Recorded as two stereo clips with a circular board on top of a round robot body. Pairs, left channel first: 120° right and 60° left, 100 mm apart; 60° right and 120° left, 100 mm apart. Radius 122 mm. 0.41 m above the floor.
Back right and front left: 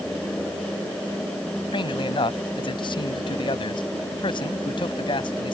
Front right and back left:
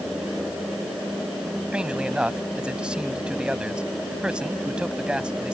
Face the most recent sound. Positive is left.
turn(degrees=-160)